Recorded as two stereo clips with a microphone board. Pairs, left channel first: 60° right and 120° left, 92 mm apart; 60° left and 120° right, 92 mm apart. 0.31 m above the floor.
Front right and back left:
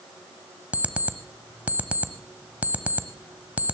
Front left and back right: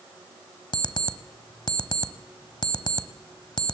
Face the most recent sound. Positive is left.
turn(degrees=50)